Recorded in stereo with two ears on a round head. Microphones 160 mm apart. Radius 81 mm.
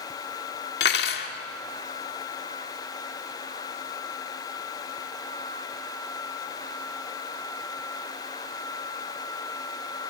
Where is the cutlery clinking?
65° left (ahead or behind), 2.0 m.